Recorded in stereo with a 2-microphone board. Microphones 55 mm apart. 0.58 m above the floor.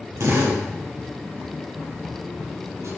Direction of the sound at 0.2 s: 55° right (ahead or behind).